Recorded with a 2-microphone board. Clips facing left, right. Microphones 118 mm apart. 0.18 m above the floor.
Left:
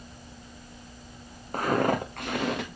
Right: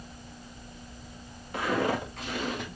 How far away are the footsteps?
About 2 m.